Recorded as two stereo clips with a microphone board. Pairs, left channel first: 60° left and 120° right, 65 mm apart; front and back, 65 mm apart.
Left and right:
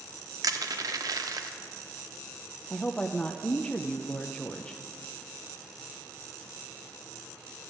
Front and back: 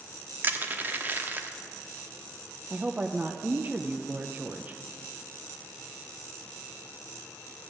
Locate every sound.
0.4 s crushing: 120° right, 0.9 m
2.7 s a woman speaking: 135° left, 0.5 m